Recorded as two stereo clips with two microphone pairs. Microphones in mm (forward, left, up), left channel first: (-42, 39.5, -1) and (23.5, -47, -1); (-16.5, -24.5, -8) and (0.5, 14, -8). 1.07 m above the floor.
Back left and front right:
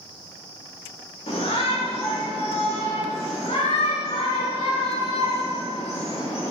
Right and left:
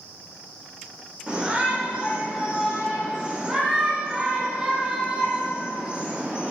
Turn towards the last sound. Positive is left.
turn(degrees=135)